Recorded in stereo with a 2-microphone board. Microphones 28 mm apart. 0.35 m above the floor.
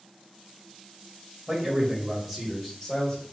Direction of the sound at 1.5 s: 40° right (ahead or behind).